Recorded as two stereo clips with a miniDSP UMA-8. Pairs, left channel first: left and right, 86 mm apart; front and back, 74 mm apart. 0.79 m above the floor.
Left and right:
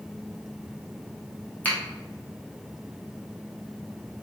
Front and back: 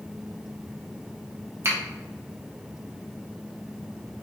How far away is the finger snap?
About 0.9 m.